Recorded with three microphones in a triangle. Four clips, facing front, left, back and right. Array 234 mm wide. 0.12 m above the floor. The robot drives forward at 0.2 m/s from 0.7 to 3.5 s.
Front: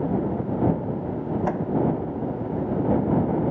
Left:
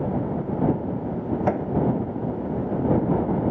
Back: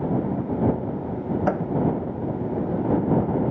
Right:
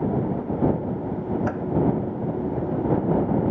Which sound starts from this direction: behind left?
A microwave, at 1.5 s.